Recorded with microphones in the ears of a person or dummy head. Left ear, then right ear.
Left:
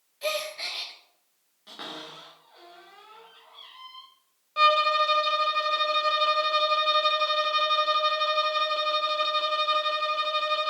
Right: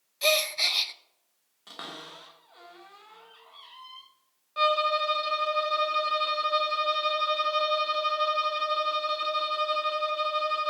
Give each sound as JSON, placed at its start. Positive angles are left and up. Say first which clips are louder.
{"t": 0.2, "sound": "a gasp", "louder": "right 6 dB", "side_deg": -30, "distance_m": 0.7}
{"t": 1.7, "sound": "a cupboard door", "louder": "left 2 dB", "side_deg": -35, "distance_m": 3.0}
{"t": 4.6, "sound": "a violin", "louder": "left 4 dB", "side_deg": 10, "distance_m": 0.9}